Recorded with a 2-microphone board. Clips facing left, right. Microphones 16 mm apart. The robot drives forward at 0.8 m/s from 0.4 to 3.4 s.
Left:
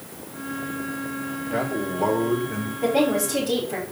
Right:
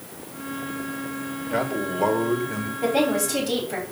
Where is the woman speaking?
10° right (ahead or behind), 5.5 m.